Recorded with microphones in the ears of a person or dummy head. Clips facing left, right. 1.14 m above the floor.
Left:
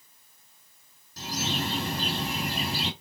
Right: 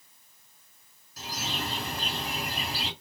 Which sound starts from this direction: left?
A bird, at 1.2 s.